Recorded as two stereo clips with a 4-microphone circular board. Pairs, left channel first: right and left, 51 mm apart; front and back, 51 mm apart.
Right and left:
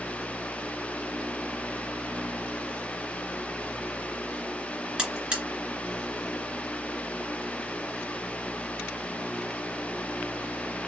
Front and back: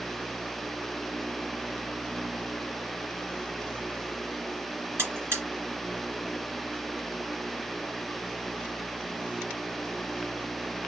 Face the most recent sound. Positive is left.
turn(degrees=160)